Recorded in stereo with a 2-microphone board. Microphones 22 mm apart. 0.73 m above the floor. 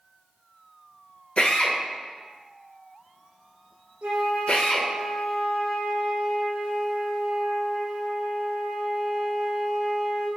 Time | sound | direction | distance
1.4 | a drill | 55° left (ahead or behind) | 1.0 m
4.0 | a flute | 75° right (ahead or behind) | 1.1 m